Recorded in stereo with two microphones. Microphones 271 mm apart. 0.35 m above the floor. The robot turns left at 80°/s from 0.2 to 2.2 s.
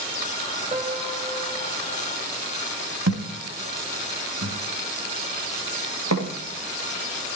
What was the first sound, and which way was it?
A piano, 145° right.